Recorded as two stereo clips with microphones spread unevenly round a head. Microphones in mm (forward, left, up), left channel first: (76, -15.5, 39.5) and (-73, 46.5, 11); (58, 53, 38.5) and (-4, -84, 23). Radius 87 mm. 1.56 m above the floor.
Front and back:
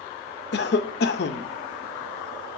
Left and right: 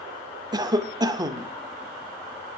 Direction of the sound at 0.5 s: 50° right.